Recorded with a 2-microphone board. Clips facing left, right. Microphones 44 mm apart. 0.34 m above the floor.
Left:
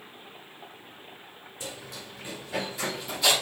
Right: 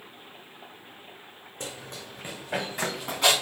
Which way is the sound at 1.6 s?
50° right (ahead or behind).